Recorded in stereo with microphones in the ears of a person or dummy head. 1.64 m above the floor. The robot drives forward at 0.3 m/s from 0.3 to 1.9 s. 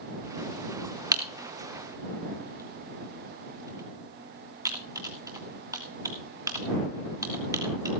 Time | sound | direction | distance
1.1 | typing on a keyboard | 15° right (ahead or behind) | 1.5 m